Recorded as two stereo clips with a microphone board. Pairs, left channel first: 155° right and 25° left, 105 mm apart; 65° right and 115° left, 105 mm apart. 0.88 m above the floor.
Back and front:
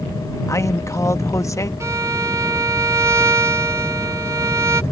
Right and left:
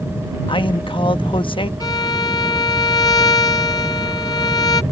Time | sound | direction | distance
0.5 | a man speaking | 95° right | ?
1.8 | a violin | 30° right | ?